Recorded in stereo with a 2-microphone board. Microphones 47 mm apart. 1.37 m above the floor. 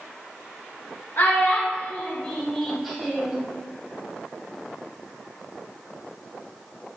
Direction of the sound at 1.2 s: 50° left (ahead or behind).